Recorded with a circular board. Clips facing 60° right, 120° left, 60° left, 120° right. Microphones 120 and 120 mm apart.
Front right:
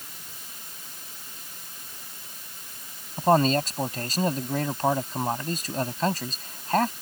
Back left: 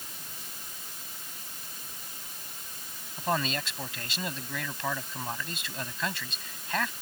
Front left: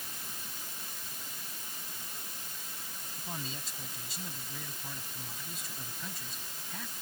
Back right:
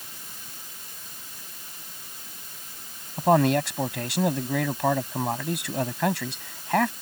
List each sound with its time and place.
3.2 s a man speaking: 110° right